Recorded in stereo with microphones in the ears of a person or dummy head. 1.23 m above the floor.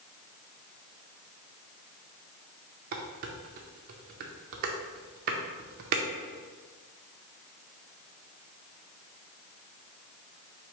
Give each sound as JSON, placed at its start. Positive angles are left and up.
{"t": 2.9, "sound": "dishes clattering", "side_deg": -55, "distance_m": 0.6}